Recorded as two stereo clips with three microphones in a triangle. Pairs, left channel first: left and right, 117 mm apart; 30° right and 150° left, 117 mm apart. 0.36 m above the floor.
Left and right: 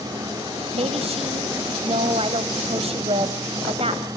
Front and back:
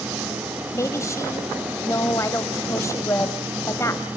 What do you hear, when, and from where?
0.7 s a woman speaking: 90° right, 1.8 m